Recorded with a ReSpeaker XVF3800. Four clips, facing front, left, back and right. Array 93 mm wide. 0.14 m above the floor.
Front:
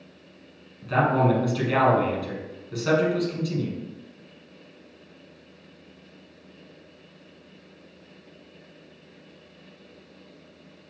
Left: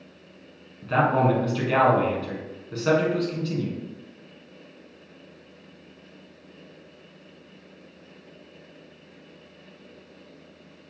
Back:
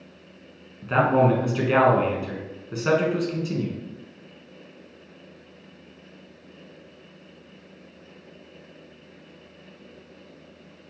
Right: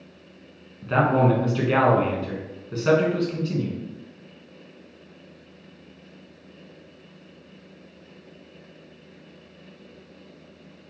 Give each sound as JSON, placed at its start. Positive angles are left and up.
{"t": 0.8, "sound": "a man speaking", "azimuth_deg": -165, "distance_m": 1.2}